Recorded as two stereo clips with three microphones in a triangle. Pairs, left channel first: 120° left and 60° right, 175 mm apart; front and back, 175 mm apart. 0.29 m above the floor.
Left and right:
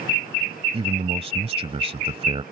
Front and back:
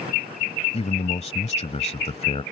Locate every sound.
0.7 s a man speaking: 30° right